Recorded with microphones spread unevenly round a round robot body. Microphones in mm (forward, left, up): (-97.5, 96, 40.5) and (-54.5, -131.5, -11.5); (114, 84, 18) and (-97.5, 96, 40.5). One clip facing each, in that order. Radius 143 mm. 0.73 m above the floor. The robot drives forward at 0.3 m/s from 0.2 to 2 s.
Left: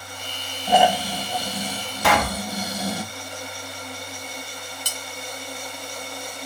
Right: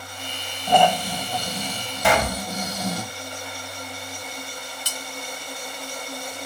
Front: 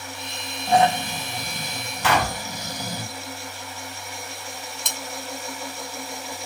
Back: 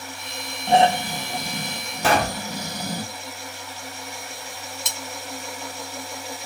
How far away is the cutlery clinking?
About 1.2 m.